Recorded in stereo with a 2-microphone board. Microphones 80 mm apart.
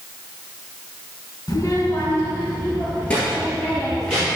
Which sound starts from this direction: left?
A child speaking, at 1.5 s.